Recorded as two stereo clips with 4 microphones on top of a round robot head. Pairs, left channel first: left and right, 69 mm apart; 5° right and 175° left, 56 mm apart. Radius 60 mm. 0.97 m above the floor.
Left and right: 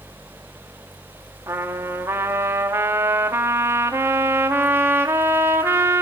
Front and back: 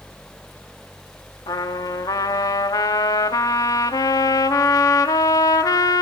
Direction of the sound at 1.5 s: 30° right.